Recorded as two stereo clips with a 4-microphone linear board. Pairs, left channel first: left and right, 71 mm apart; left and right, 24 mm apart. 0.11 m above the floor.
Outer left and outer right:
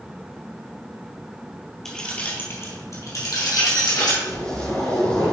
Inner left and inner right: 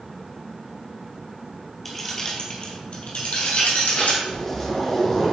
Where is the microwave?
I don't hear a microwave.